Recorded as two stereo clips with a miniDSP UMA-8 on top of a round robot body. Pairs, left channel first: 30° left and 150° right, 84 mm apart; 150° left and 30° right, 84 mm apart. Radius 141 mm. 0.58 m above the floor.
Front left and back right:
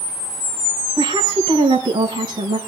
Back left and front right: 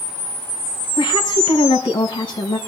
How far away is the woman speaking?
About 4.5 m.